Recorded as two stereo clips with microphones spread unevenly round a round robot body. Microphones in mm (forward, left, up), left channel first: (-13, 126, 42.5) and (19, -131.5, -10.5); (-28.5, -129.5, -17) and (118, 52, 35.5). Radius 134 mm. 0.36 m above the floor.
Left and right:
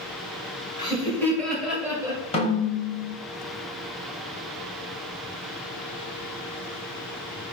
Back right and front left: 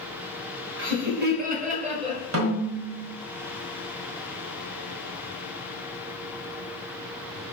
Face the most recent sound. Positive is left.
turn(degrees=25)